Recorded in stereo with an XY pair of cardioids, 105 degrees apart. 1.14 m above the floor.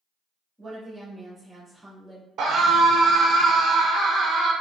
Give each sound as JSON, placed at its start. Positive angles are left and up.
{"t": 0.6, "sound": "a woman speaking", "azimuth_deg": -15, "distance_m": 1.8}
{"t": 2.4, "sound": "a scream", "azimuth_deg": -65, "distance_m": 0.5}